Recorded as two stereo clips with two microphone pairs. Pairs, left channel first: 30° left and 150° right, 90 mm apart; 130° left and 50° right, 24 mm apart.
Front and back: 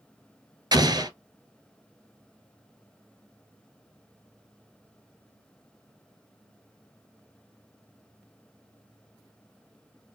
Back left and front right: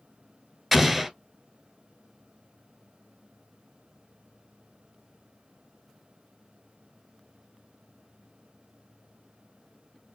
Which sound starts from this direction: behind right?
An explosion, at 0.7 s.